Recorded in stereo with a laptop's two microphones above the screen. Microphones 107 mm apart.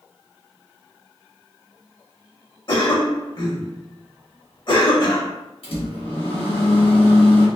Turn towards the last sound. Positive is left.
turn(degrees=65)  # may be behind; listen again after turning